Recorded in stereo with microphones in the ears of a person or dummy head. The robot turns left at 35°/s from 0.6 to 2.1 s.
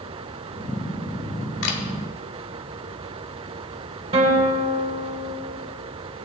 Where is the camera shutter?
65° left (ahead or behind), 1.2 m; by 1.8 s 70° left (ahead or behind), 1.2 m.